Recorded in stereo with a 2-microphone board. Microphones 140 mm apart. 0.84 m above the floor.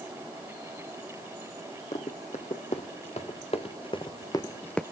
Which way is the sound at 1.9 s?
55° left (ahead or behind).